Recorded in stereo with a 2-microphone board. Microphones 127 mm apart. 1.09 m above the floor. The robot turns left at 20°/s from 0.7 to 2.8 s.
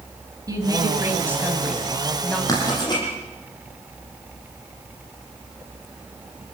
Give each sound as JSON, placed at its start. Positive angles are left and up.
{"t": 0.5, "sound": "a woman speaking", "azimuth_deg": -155, "distance_m": 6.0}
{"t": 2.5, "sound": "writing", "side_deg": 25, "distance_m": 10.0}